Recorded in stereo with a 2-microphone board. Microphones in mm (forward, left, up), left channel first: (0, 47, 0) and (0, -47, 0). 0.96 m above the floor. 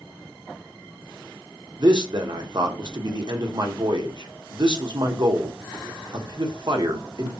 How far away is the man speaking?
About 0.6 m.